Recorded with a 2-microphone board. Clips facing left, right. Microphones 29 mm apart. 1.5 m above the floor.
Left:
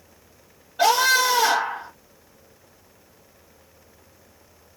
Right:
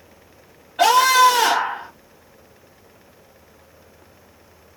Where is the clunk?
I don't hear a clunk.